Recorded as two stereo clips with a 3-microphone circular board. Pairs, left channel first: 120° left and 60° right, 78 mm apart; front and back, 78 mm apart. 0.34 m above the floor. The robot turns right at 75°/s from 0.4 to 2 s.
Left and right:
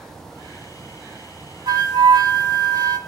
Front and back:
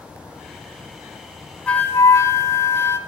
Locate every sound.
1.7 s a flute: 75° right, 0.7 m; by 3.0 s 50° right, 0.7 m